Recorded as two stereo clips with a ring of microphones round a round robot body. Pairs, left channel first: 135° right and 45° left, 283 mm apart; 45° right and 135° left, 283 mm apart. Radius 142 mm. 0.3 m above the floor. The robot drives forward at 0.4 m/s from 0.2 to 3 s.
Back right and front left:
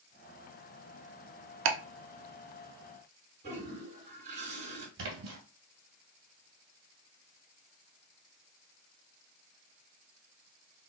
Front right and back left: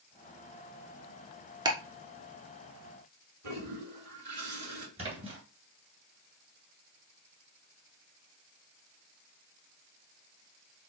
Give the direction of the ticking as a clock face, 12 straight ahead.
10 o'clock.